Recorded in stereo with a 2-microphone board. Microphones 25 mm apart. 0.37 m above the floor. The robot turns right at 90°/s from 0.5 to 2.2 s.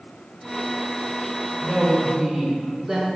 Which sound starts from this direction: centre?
A woman speaking, at 1.6 s.